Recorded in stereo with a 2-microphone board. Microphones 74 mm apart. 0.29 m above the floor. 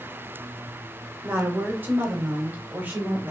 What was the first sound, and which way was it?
A woman speaking, 30° right (ahead or behind).